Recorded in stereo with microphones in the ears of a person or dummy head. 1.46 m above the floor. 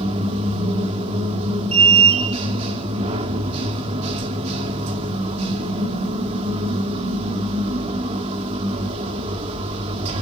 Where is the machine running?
35° right (ahead or behind), 1.9 m.